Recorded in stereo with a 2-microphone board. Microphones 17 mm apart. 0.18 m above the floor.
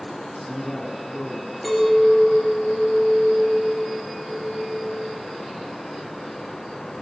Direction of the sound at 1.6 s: Centre (ahead or behind).